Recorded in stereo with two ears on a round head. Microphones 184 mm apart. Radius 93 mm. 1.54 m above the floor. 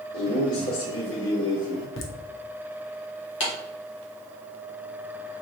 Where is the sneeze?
No sneeze in this recording.